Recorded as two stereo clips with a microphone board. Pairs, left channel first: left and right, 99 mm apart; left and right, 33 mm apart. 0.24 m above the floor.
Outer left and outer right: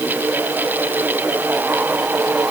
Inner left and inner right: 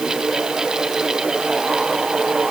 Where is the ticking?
I don't hear ticking.